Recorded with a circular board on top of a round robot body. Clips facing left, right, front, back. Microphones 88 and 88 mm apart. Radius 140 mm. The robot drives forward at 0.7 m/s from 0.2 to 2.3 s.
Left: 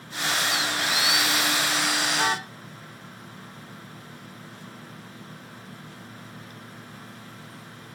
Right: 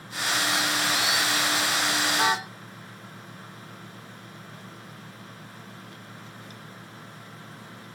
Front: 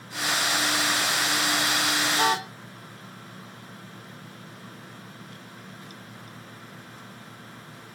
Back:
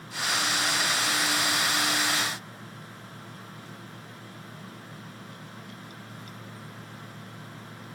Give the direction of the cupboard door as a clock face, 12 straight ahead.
I don't hear a cupboard door.